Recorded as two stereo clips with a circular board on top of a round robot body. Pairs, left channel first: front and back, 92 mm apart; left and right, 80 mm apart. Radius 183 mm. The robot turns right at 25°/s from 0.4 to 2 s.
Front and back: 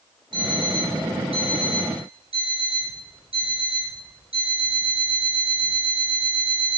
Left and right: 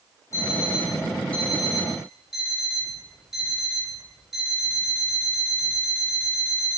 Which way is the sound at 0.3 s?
145° left.